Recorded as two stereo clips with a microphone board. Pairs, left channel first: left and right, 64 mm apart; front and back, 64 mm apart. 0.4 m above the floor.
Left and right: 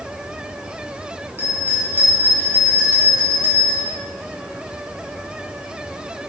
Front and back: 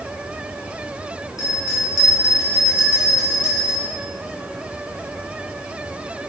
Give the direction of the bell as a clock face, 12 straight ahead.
1 o'clock.